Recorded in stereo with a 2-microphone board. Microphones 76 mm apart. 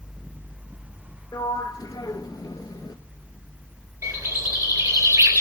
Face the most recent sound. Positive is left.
turn(degrees=-50)  # may be behind; listen again after turning